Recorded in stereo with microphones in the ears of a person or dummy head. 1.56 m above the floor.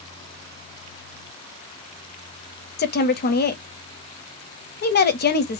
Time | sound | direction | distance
2.8 | a woman speaking | 45° left (ahead or behind) | 0.6 m